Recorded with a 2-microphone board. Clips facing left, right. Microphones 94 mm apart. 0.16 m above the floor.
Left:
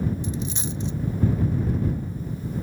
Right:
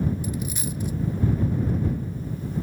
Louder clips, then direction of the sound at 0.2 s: Even; 25° left (ahead or behind).